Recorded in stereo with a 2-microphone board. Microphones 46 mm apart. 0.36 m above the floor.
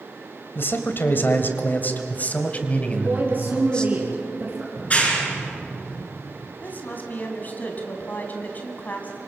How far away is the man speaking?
About 2 m.